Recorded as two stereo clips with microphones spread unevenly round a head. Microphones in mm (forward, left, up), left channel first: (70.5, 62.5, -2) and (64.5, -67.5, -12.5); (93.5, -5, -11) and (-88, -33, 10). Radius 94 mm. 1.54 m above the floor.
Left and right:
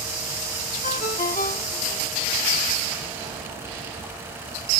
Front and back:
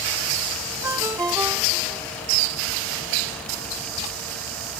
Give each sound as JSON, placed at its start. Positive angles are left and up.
{"t": 0.8, "sound": "a ringtone", "azimuth_deg": 115}